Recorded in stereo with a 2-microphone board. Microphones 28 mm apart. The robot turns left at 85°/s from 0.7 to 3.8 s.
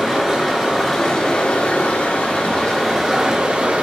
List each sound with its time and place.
0.0 s running water: 165° right, 1.4 m; by 3.8 s 70° right, 1.4 m